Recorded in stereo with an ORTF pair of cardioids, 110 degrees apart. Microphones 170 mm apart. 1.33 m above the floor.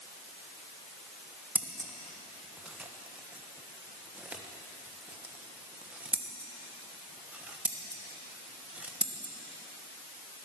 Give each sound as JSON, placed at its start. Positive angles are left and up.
{"t": 1.6, "sound": "scissors", "azimuth_deg": -10, "distance_m": 1.2}